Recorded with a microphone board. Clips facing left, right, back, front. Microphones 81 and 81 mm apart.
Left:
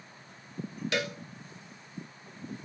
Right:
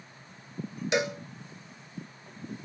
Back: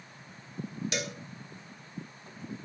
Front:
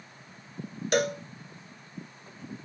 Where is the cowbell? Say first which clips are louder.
Right 5 dB, front 14 dB; 25° right, 0.6 m.